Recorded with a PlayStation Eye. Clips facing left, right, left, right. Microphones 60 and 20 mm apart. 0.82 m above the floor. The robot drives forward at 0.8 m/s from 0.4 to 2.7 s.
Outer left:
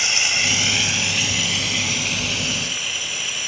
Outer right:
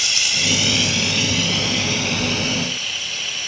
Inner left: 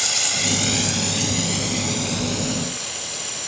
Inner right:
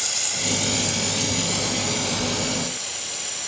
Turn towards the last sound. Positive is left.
turn(degrees=10)  # may be behind; listen again after turning